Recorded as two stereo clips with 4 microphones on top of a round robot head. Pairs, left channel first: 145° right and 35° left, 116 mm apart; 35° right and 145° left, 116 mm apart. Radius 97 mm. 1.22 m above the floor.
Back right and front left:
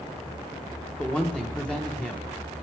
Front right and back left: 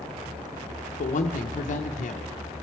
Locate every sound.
1.0 s a woman speaking: 60° right, 0.7 m